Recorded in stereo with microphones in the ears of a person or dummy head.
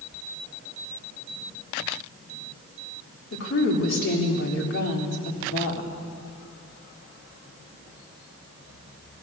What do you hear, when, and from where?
3.3 s a woman speaking: 60° left (ahead or behind), 3 m